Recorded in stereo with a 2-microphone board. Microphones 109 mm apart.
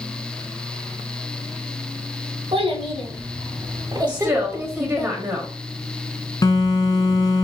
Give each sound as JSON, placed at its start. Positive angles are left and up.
{"t": 2.5, "sound": "a child speaking", "side_deg": -60, "distance_m": 1.3}
{"t": 4.1, "sound": "a woman speaking", "side_deg": -15, "distance_m": 1.3}
{"t": 6.4, "sound": "a phone buzzing", "side_deg": 40, "distance_m": 0.8}